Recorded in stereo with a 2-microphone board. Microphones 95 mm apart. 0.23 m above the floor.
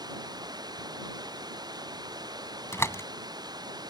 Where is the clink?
No clink in this recording.